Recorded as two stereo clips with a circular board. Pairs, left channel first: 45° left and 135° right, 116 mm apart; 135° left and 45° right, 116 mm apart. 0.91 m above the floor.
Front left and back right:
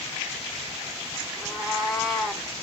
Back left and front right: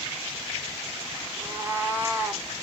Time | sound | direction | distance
1.4 | a cat meowing | 50° right | 0.8 m